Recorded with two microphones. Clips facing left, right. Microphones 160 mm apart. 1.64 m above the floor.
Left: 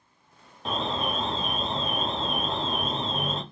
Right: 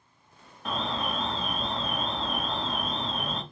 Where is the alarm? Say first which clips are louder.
Left 2 dB; 25° left (ahead or behind), 0.6 m.